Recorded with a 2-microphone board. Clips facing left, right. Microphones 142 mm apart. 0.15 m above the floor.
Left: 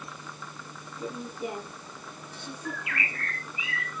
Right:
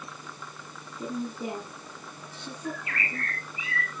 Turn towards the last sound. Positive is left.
turn(degrees=-40)  # may be behind; listen again after turning